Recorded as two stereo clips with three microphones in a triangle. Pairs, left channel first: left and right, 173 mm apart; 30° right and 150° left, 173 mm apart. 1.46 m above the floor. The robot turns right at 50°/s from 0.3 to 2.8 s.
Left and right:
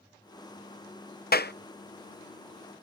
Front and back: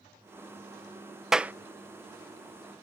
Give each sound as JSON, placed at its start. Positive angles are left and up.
{"t": 1.3, "sound": "a clap", "azimuth_deg": 60}